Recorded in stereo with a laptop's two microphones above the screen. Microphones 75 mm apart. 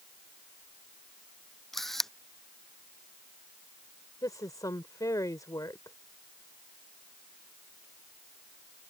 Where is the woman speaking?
55° left (ahead or behind).